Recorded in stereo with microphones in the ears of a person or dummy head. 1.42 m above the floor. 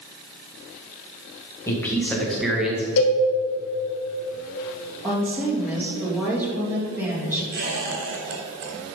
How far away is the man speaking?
About 1.8 m.